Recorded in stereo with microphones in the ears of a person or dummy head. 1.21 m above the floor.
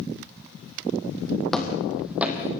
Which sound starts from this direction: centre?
Footsteps, at 1.5 s.